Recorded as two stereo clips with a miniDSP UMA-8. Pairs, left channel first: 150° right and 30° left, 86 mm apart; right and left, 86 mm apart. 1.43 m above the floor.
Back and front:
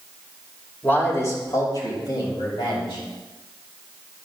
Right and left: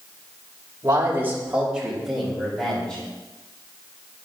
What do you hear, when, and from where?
0.8 s a man speaking: 140° left, 2.5 m; by 3.0 s 170° right, 4.5 m